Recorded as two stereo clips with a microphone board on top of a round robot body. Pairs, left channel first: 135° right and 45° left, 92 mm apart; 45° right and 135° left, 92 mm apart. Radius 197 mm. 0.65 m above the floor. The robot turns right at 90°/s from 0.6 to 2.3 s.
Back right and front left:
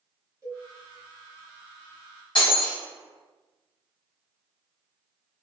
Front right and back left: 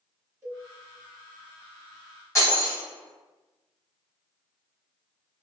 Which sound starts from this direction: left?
A cowbell, at 0.4 s.